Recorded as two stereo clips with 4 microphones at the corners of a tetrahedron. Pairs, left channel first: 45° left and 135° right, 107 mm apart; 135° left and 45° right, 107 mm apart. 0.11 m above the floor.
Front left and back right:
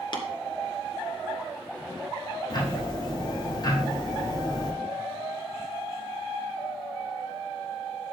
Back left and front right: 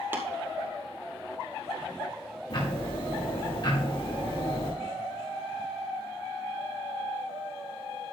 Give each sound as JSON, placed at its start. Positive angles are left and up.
{"t": 0.1, "sound": "tapping", "azimuth_deg": 20, "distance_m": 2.5}
{"t": 2.5, "sound": "ticking", "azimuth_deg": 95, "distance_m": 6.5}